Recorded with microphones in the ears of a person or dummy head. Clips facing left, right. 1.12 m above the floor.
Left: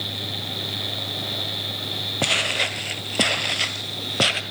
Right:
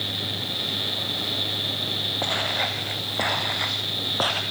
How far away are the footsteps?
About 1.5 m.